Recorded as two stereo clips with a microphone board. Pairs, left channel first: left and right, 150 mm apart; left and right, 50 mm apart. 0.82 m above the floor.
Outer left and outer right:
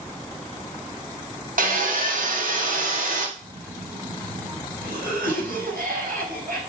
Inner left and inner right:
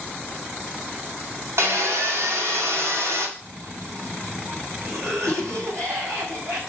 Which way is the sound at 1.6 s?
65° right (ahead or behind).